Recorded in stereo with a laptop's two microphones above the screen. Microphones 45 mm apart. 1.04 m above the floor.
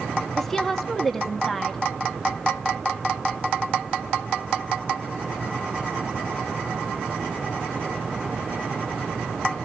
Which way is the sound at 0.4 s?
5° left (ahead or behind).